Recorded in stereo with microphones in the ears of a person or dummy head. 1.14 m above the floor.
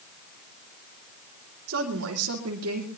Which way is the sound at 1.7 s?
65° right (ahead or behind).